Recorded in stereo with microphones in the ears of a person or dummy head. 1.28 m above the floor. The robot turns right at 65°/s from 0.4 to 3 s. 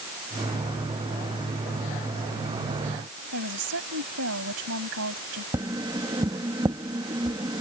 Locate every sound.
3.3 s a woman speaking: 70° right (ahead or behind)
5.5 s tapping: 20° right (ahead or behind)